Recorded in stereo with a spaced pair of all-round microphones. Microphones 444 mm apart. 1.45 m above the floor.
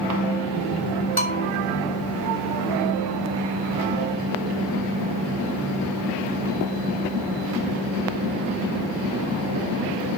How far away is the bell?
About 3.5 m.